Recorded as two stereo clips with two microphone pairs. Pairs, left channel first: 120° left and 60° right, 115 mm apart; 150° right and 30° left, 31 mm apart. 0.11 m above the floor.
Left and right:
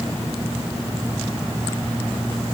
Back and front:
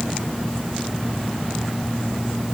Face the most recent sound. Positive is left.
No sound to turn to.